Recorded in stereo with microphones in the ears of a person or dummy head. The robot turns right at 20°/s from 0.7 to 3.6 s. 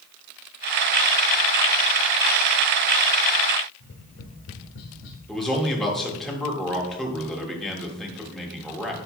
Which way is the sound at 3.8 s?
60° left (ahead or behind).